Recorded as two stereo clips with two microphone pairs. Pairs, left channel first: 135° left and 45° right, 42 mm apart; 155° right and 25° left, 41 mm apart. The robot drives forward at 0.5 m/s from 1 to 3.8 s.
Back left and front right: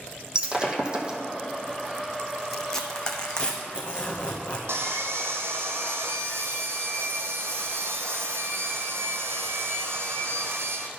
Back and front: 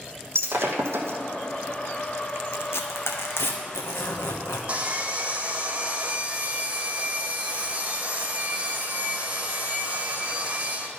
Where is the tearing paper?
140° right, 0.9 m; by 4.6 s 155° right, 1.4 m.